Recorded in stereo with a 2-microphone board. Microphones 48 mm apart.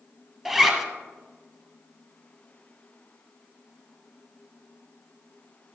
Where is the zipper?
10° right (ahead or behind), 1.2 m.